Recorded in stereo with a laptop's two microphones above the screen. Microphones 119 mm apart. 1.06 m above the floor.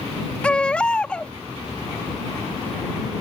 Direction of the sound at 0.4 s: 10° left (ahead or behind).